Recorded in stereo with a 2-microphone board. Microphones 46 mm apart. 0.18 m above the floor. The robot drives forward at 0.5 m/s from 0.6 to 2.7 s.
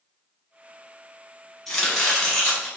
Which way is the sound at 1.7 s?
5° left (ahead or behind).